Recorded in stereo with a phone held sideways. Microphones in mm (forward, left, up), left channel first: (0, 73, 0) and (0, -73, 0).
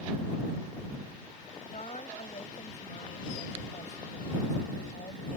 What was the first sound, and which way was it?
A woman speaking, 50° left (ahead or behind).